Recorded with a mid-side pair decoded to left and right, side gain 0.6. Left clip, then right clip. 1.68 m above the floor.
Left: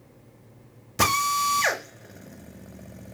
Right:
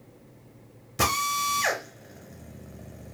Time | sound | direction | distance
1.0 | a drill | 15° left | 0.8 m